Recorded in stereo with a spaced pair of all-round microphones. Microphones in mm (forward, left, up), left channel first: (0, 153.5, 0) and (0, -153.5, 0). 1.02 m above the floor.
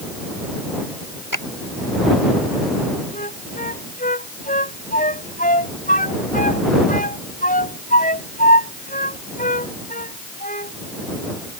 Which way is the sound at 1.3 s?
80° left.